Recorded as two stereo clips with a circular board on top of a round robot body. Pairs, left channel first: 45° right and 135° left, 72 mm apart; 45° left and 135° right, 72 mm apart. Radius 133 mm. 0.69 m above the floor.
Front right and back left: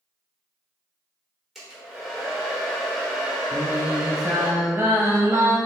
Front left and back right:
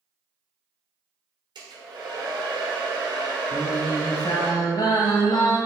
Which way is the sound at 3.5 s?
75° left.